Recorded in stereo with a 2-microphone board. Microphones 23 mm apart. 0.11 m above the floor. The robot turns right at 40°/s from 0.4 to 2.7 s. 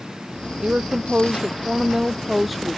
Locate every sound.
0.6 s a woman speaking: 75° right; by 2.8 s 10° left